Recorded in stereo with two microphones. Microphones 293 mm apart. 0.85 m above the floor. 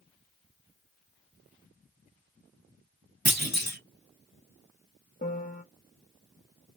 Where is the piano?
25° left (ahead or behind), 0.7 m.